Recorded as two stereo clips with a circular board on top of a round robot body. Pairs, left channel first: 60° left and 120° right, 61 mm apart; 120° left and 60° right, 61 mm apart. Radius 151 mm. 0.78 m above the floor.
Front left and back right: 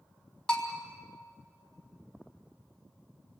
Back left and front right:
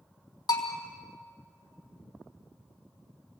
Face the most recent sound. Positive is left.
turn(degrees=135)